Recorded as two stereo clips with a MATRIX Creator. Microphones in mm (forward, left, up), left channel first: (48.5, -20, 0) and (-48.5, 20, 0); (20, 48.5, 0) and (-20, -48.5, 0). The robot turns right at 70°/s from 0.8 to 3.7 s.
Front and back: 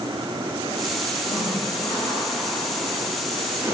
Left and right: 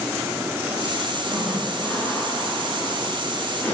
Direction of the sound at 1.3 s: 40° right.